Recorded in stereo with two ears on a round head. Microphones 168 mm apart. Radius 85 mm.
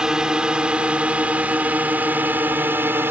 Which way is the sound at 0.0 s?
5° right (ahead or behind).